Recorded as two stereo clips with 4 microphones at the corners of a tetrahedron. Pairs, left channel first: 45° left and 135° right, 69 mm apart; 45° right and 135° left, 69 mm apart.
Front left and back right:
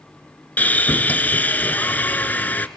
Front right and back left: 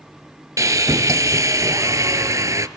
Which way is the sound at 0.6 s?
105° left.